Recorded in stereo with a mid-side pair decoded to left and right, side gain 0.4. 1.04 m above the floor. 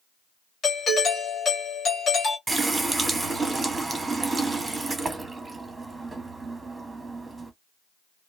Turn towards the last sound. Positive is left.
turn(degrees=-20)